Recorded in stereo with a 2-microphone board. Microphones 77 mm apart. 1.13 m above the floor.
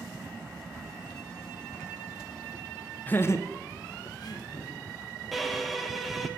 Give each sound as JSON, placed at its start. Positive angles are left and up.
{"t": 3.1, "sound": "laughter", "side_deg": 25, "distance_m": 0.5}
{"t": 5.3, "sound": "a violin", "side_deg": 0, "distance_m": 0.8}